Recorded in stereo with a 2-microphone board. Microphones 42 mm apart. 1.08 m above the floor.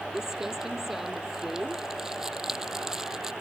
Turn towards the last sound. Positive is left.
turn(degrees=-10)  # may be behind; listen again after turning